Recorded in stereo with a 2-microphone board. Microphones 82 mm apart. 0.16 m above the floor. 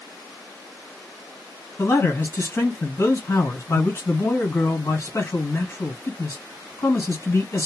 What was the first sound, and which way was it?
A man speaking, 35° left (ahead or behind).